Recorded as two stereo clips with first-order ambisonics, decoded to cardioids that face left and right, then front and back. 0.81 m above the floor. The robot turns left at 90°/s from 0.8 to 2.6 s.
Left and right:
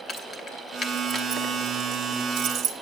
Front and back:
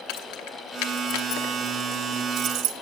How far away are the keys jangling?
About 0.8 m.